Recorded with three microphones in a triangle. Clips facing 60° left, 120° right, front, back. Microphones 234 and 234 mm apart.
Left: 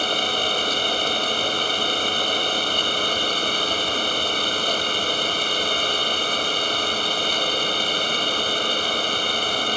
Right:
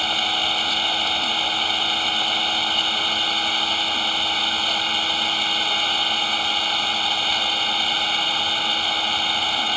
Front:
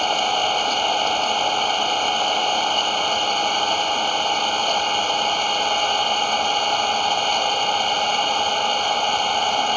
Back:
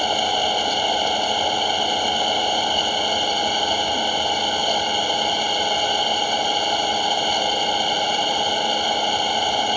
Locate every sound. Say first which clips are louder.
0.0 s an engine running: left 4 dB, back 1 dB; 100° left